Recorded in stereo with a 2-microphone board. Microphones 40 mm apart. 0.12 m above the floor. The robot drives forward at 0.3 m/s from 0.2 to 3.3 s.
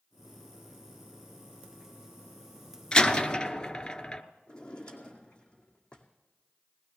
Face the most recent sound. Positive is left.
turn(degrees=25)  # may be behind; listen again after turning